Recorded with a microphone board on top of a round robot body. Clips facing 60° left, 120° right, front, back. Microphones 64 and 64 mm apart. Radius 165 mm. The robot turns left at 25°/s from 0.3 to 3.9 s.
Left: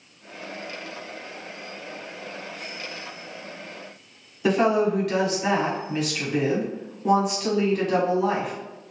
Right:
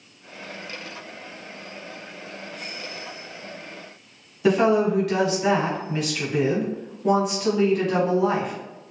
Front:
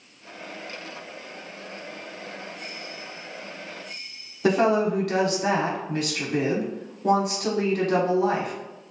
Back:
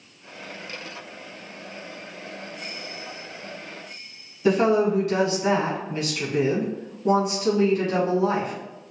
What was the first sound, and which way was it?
A woman speaking, 30° right.